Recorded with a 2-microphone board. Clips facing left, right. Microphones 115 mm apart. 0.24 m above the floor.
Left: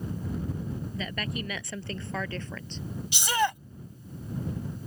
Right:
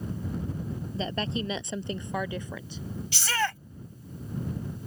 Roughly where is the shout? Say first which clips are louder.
Left 3 dB; centre.